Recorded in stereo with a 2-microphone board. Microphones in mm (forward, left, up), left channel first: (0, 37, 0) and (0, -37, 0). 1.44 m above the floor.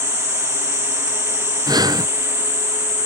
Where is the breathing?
60° right (ahead or behind).